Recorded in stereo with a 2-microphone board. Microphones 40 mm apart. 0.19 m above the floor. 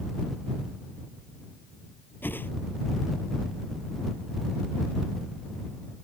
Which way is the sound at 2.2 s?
60° left (ahead or behind).